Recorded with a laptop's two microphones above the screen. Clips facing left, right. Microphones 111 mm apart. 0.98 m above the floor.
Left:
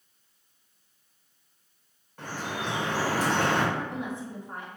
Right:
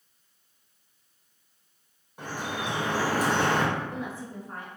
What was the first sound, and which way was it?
Dripping, 15° right (ahead or behind).